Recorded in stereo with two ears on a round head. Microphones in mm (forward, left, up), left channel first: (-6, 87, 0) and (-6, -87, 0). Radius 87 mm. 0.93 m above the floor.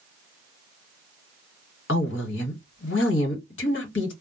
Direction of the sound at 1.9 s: 65° left (ahead or behind).